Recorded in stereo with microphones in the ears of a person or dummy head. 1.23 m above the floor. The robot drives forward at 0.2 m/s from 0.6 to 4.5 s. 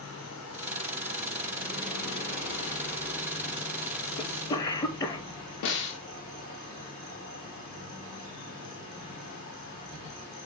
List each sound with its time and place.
0.0 s an insect: 70° left (ahead or behind), 1.2 m; by 10.5 s 45° left (ahead or behind), 1.6 m
4.2 s a cough: 15° left (ahead or behind), 0.5 m
5.6 s a snare drum: 60° left (ahead or behind), 0.6 m